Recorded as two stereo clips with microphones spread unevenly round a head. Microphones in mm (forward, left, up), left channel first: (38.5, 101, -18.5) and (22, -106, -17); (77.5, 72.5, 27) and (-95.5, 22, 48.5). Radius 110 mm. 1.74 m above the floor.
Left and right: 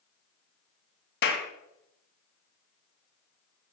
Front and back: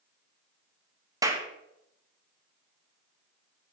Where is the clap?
125° left, 2 m.